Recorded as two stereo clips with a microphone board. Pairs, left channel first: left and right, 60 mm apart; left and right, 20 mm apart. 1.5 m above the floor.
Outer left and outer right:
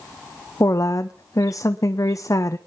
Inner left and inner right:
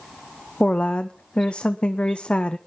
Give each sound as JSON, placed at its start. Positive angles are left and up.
{"t": 0.6, "sound": "a woman speaking", "side_deg": 65, "distance_m": 0.8}